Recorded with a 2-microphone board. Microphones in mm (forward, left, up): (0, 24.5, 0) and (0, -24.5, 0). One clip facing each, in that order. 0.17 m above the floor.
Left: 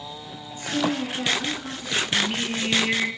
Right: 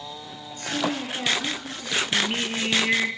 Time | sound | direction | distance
0.5 | a woman speaking | 15° left (ahead or behind) | 1.9 m
2.1 | singing | 20° right (ahead or behind) | 1.8 m